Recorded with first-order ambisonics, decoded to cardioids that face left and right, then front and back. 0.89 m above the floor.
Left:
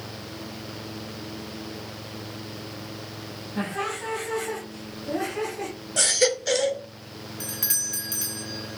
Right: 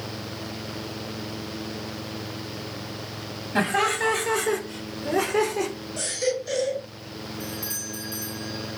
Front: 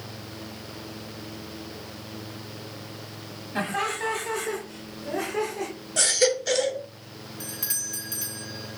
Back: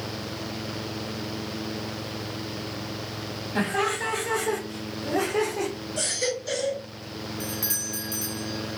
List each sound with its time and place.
3.5 s laughter: 95° right, 2 m; by 5.7 s 120° right, 3.5 m
6.0 s a baby crying: 55° left, 2.5 m
7.4 s a doorbell: 85° left, 1.6 m